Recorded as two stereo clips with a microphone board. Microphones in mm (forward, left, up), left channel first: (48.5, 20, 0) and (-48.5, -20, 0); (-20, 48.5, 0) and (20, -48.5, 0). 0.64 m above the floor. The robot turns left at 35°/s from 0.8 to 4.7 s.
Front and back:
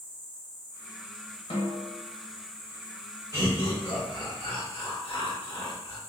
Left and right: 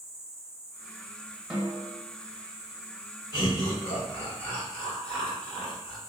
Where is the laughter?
75° left, 1.7 m; by 6.0 s 30° left, 1.7 m.